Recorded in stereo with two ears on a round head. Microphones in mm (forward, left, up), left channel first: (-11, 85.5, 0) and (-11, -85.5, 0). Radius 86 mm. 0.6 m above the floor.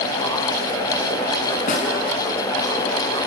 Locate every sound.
1.7 s a snare drum: 45° left (ahead or behind), 5.5 m